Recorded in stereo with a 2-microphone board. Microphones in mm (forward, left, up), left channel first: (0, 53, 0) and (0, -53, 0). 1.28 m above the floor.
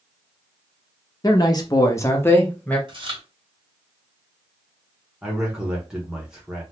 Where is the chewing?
50° right (ahead or behind), 1.6 m.